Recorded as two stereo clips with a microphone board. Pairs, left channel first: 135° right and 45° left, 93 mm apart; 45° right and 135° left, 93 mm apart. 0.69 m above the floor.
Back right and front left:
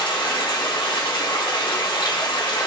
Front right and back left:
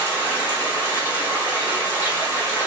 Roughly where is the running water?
Right.